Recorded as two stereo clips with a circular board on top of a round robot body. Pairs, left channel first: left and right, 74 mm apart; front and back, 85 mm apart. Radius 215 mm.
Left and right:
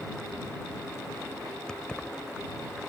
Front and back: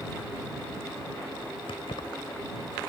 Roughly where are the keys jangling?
Ahead.